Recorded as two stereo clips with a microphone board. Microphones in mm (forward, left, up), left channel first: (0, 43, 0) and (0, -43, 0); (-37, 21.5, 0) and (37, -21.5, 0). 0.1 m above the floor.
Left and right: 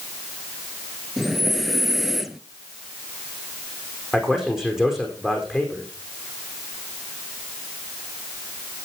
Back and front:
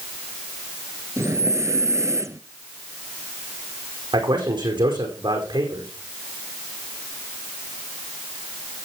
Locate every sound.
1.2 s breathing: straight ahead, 1.0 m
4.1 s a man speaking: 5° right, 5 m